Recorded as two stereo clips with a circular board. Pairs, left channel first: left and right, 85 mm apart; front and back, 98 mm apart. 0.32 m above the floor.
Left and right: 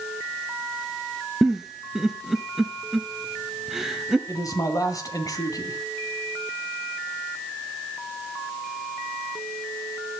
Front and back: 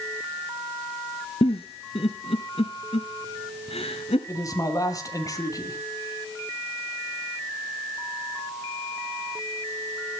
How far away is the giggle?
About 1.6 m.